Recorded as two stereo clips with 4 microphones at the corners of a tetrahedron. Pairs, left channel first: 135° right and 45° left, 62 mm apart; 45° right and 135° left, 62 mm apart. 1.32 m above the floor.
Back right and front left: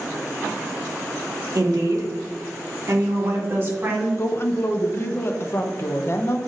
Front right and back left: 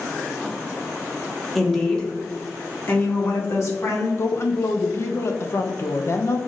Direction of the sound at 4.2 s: 90° right.